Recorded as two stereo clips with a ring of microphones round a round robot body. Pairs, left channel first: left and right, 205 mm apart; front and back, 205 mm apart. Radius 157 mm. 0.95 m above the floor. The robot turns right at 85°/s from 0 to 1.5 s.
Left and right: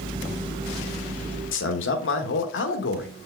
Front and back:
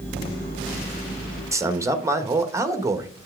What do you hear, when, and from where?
1.5 s a man speaking: 105° left, 1.4 m